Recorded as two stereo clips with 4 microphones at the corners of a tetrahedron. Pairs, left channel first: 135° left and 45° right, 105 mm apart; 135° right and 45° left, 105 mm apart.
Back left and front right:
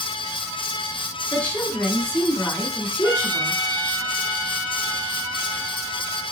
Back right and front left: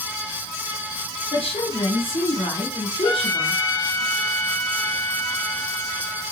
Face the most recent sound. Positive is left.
turn(degrees=-165)